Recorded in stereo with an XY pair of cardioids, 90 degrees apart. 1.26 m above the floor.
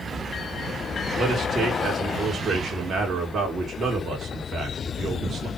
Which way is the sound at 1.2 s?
50° right.